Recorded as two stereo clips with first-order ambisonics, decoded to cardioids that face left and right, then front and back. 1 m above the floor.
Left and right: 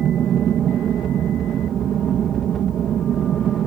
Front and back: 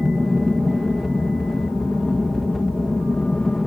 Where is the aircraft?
80° right.